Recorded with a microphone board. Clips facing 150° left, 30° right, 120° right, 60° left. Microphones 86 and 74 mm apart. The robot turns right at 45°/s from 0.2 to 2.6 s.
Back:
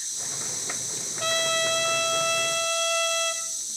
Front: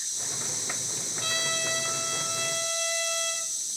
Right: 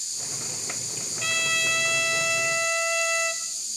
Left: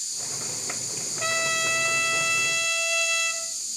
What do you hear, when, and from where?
1.2 s a trumpet: 125° left, 4.5 m; by 3.4 s 170° right, 4.5 m